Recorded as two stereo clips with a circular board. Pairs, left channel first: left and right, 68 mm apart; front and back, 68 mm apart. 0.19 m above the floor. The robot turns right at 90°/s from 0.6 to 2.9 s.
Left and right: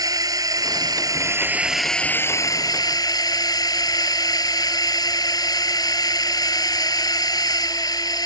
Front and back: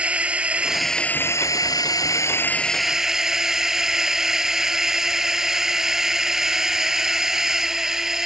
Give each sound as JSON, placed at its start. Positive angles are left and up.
{"t": 0.0, "sound": "a drone", "azimuth_deg": -110}